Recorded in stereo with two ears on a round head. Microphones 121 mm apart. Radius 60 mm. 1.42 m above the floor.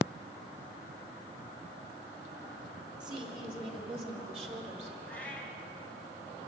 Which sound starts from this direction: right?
A woman speaking, at 3.0 s.